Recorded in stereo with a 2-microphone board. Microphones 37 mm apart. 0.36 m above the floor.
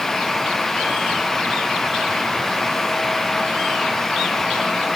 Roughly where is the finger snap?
I don't hear a finger snap.